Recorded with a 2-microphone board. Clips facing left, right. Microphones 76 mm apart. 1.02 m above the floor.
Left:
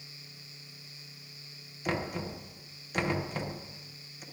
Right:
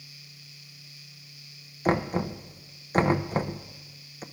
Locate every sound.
1.9 s knocking: 35° right (ahead or behind), 0.6 m